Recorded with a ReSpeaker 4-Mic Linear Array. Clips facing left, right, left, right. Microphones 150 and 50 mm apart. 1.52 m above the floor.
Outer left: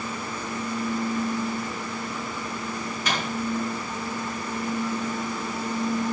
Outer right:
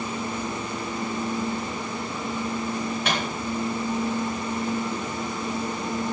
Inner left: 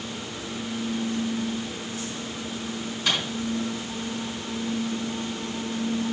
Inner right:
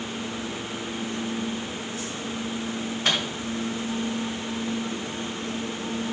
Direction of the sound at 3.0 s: 65° right (ahead or behind).